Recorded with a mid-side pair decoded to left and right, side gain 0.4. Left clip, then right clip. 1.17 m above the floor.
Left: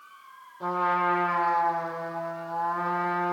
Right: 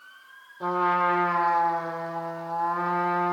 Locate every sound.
0.6 s a trumpet: 20° right, 7.5 m